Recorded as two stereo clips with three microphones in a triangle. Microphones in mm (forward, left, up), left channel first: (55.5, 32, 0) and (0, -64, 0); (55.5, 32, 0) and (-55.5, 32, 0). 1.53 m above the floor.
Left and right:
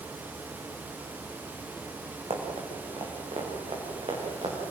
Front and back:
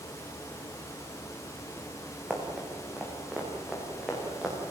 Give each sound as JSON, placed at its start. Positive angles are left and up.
{"t": 2.3, "sound": "running footsteps", "azimuth_deg": -100, "distance_m": 5.5}